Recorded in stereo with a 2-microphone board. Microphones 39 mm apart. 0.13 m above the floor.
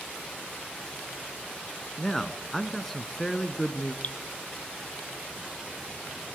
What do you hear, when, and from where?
2.0 s a man speaking: 5° left (ahead or behind), 1.1 m
4.0 s dripping: 40° left (ahead or behind), 1.0 m